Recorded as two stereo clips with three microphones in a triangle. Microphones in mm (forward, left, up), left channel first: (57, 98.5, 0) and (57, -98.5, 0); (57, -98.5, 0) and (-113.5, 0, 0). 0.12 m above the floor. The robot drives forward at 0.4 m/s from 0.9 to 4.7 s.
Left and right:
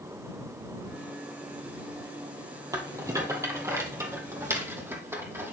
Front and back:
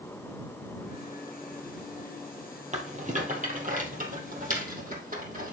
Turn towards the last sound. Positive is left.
turn(degrees=-165)